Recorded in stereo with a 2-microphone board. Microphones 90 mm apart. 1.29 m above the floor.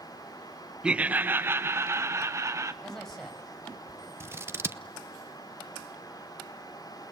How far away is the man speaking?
About 6.5 m.